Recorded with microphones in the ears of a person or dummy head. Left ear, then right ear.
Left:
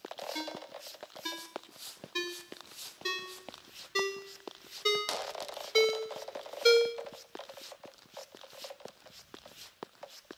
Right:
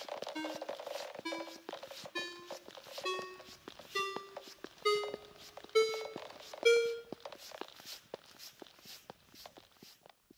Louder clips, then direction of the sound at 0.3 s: Even; 20° left (ahead or behind).